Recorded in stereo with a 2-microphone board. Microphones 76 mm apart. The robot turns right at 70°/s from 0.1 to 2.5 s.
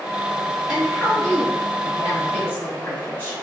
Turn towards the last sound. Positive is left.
turn(degrees=120)